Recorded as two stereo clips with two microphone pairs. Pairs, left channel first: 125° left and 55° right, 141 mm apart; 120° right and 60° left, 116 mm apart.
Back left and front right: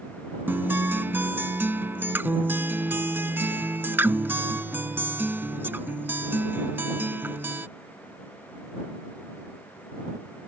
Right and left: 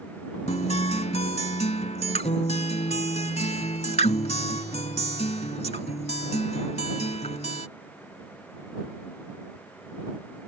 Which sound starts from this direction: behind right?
A guitar, at 0.5 s.